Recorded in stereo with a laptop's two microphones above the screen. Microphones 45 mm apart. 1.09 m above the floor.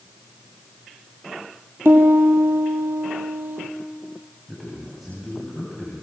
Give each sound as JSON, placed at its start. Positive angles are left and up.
{"t": 1.9, "sound": "a piano", "side_deg": -55, "distance_m": 5.0}
{"t": 4.5, "sound": "a man speaking", "side_deg": -5, "distance_m": 9.0}